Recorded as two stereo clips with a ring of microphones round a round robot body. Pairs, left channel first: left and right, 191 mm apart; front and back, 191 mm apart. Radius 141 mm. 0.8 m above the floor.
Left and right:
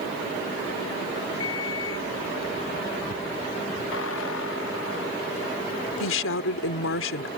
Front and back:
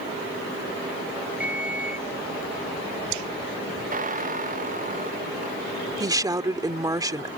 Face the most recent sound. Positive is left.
turn(degrees=110)